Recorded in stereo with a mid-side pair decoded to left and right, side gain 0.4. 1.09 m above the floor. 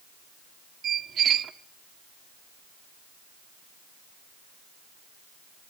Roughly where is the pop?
No pop in this recording.